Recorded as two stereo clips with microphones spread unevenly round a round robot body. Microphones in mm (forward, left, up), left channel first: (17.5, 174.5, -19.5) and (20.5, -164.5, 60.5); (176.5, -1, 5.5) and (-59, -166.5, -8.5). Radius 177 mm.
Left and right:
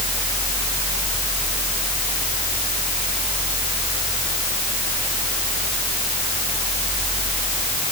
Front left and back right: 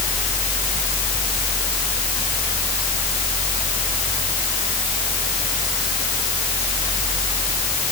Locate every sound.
Only background noise.